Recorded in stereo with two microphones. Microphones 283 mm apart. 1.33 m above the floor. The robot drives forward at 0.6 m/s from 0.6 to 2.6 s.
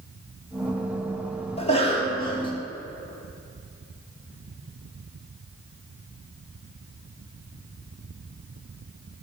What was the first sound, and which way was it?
A cough, 20° left (ahead or behind).